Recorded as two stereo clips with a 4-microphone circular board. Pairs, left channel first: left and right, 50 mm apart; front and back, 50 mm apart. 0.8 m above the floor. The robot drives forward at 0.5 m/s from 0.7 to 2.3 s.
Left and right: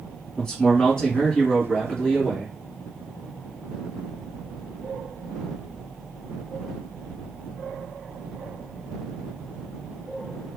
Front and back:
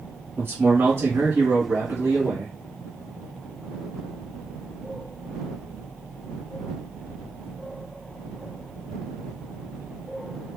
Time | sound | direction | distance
0.4 | a man speaking | 165° left | 1.8 m